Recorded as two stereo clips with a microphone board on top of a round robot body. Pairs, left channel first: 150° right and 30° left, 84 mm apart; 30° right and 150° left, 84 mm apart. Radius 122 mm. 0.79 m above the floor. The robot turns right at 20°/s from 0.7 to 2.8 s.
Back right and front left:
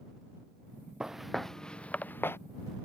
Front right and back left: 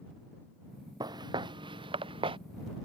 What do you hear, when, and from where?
1.0 s footsteps: 115° left; by 2.4 s 145° left